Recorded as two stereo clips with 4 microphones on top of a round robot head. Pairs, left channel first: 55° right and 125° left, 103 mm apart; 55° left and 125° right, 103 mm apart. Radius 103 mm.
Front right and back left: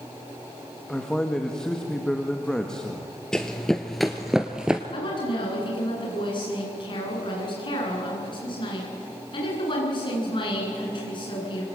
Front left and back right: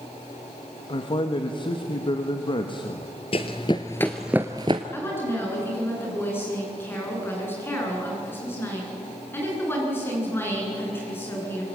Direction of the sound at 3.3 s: 30° left.